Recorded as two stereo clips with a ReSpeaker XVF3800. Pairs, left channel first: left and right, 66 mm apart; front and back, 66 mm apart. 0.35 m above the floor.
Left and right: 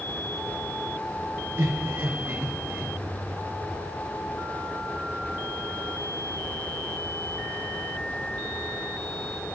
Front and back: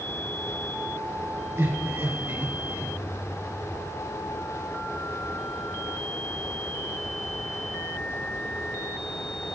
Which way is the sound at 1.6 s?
140° right.